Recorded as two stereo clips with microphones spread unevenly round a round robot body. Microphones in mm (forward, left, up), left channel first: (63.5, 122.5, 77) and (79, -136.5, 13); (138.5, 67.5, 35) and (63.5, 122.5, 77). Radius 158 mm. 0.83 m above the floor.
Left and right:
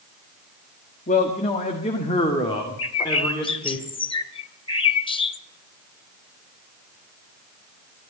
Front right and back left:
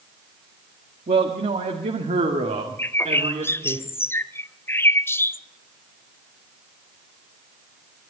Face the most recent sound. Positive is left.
turn(degrees=50)